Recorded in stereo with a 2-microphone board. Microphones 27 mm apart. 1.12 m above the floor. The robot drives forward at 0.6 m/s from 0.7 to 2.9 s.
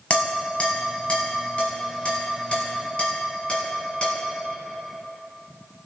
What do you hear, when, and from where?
0.1 s dishes clattering: 50° left (ahead or behind), 5.5 m; by 4.2 s 40° left (ahead or behind), 6.5 m